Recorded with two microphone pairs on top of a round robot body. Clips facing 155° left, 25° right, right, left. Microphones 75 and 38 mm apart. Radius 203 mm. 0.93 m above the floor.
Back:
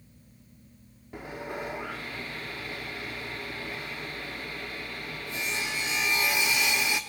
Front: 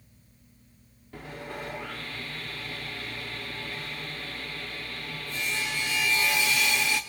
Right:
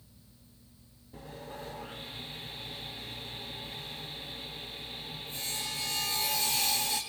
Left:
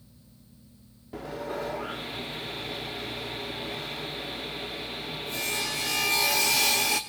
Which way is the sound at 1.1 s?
85° left.